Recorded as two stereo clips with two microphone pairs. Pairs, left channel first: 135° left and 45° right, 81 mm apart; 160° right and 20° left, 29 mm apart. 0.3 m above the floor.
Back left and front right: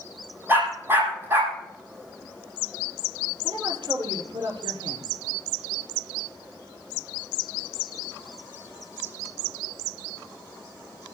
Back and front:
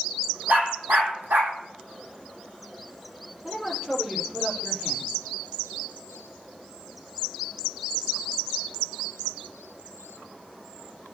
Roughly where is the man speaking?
Ahead right.